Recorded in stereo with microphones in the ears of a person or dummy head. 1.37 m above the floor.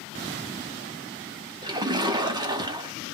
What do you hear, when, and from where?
1.6 s a splash: 20° right (ahead or behind), 0.6 m